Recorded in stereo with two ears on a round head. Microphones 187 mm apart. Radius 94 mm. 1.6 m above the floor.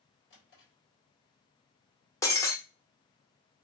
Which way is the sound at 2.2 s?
15° left (ahead or behind).